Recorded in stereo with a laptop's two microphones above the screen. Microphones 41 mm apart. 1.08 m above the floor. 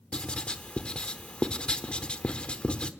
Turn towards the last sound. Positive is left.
turn(degrees=25)  # may be behind; listen again after turning